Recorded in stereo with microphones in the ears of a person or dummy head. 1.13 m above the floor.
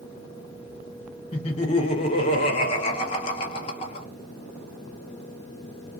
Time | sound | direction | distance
1.3 | laughter | 25° left (ahead or behind) | 0.6 m